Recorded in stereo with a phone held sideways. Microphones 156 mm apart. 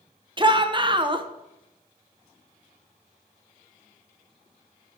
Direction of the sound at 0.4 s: 30° right (ahead or behind).